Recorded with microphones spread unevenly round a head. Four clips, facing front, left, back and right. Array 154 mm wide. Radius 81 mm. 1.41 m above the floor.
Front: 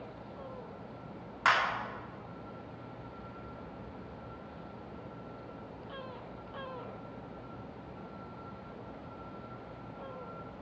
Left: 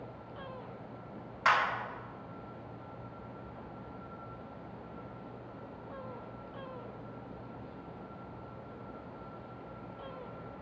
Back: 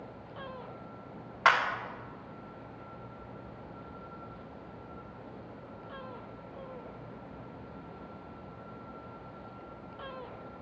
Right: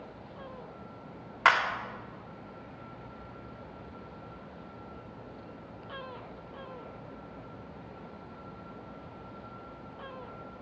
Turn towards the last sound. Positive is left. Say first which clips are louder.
# right 3 dB, back 3 dB
turn(degrees=-110)